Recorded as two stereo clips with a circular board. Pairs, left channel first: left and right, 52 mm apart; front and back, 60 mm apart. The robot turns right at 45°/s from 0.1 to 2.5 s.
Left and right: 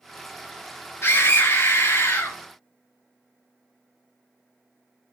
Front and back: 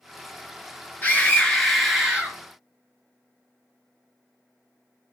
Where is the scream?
55° left, 4 m; by 2.4 s 115° left, 4 m.